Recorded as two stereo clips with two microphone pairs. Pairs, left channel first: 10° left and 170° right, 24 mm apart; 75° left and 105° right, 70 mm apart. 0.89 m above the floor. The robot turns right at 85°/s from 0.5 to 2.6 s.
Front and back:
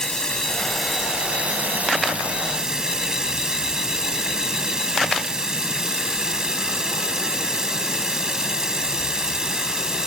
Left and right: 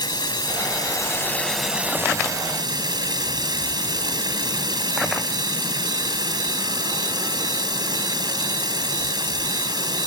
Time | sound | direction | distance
0.0 | running water | 75° left | ?